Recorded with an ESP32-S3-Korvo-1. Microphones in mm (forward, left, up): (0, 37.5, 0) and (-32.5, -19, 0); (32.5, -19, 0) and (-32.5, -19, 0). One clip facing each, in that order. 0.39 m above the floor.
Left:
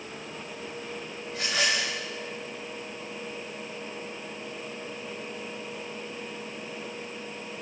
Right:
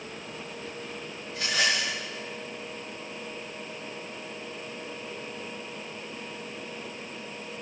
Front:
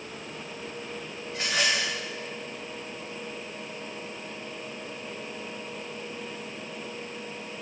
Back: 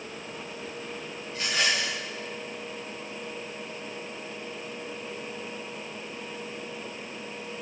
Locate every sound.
1.3 s a rattle: 45° left, 6 m